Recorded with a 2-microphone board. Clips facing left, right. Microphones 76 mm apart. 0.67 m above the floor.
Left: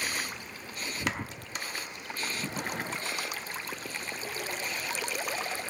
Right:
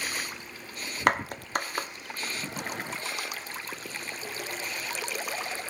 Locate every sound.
1.1 s a clap: 55° right (ahead or behind), 0.8 m